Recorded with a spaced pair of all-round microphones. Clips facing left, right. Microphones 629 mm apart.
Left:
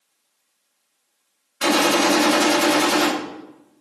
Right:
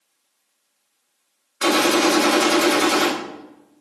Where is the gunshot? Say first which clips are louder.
Right 1 dB; 25° left (ahead or behind), 1.1 m.